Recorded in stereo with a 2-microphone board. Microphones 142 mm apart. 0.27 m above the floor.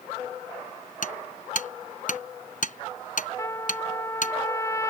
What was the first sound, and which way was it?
Hammering, 65° left (ahead or behind).